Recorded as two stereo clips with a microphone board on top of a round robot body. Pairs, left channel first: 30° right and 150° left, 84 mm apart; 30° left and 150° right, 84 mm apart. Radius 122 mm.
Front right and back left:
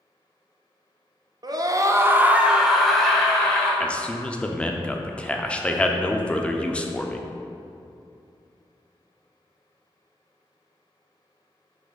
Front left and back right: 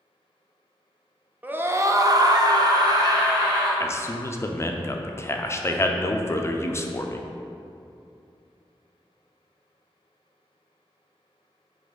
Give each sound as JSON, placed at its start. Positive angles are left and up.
{"t": 1.4, "sound": "a scream", "azimuth_deg": 145, "distance_m": 1.0}
{"t": 3.8, "sound": "a man speaking", "azimuth_deg": 35, "distance_m": 0.8}